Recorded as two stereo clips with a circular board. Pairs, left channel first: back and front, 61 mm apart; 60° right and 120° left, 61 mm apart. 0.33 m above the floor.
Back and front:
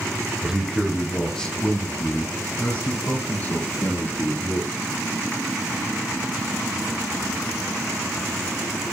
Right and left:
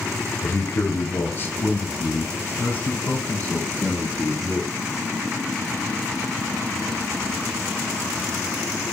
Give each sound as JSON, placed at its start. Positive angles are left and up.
{"t": 0.4, "sound": "a man speaking", "azimuth_deg": -70, "distance_m": 1.1}